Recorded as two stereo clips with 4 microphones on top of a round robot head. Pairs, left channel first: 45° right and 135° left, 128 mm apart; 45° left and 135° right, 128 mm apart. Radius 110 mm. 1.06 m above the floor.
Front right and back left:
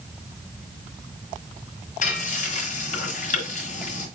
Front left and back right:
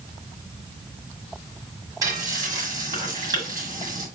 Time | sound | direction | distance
2.0 | frying | 70° right | 1.7 m